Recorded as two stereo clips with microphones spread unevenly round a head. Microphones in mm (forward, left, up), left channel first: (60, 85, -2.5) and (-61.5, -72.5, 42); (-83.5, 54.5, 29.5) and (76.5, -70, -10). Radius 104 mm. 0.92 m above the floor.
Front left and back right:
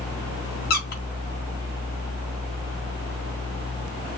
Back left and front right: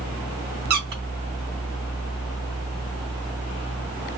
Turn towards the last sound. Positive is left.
turn(degrees=5)